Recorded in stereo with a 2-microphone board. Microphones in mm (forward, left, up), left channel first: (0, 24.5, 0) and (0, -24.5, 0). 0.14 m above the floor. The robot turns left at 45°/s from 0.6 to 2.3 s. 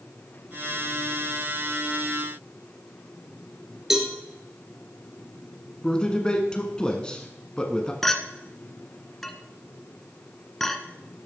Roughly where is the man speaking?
Centre.